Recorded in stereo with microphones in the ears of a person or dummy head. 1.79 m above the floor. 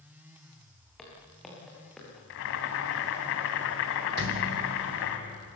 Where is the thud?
55° right (ahead or behind), 3.5 m.